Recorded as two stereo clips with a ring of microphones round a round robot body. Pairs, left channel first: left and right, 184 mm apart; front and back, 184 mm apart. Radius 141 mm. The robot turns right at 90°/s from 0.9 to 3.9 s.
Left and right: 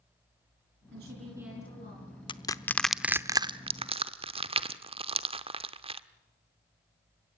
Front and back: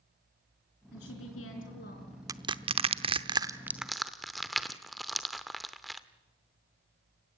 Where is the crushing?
125° left, 0.8 m; by 6.0 s 90° right, 0.8 m.